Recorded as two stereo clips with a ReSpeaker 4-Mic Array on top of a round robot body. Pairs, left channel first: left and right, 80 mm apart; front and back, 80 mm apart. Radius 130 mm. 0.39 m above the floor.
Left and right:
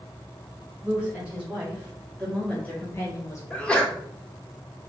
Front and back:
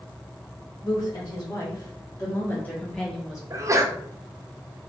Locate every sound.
0.8 s a woman speaking: 20° right, 1.9 m; by 3.4 s 100° left, 1.3 m
3.5 s a sneeze: 160° left, 1.0 m